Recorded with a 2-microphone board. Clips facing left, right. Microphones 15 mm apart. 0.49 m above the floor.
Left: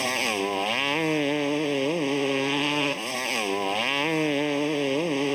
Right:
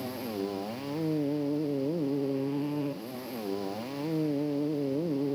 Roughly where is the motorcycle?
Left.